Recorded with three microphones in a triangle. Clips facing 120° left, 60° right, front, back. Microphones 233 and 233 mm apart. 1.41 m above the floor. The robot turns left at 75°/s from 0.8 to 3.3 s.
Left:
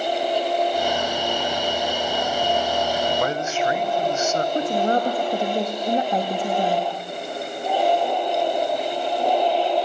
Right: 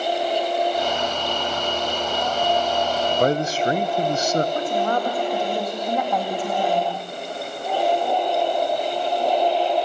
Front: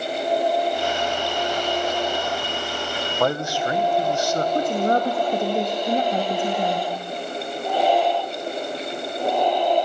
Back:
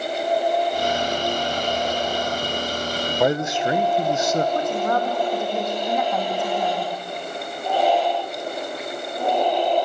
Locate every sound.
3.2 s a man speaking: 105° right, 1.2 m; by 4.5 s 110° right, 1.2 m
4.5 s a woman speaking: 60° left, 2 m